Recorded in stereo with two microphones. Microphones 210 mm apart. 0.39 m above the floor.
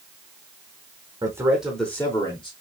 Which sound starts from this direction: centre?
A man speaking, at 1.2 s.